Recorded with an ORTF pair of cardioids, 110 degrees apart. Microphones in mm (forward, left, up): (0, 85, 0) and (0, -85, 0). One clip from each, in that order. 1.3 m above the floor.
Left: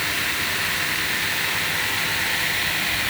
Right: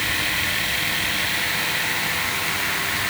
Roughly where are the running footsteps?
No running footsteps in this recording.